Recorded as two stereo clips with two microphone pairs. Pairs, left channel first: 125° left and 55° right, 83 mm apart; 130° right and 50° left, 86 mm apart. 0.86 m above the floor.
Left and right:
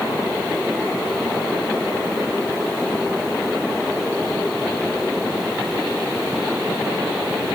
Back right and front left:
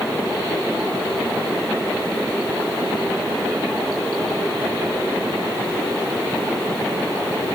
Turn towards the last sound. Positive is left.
No sound to turn to.